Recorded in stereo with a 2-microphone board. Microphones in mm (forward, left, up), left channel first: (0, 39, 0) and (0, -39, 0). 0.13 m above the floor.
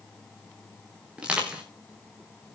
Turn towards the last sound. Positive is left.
turn(degrees=-15)  # may be behind; listen again after turning